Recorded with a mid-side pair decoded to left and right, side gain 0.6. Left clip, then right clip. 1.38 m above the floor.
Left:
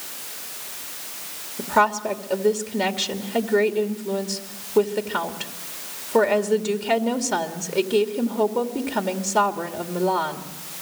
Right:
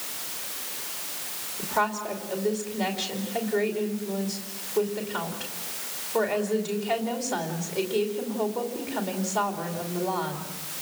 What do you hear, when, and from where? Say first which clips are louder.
1.6 s a woman speaking: left 7 dB; 50° left, 2.5 m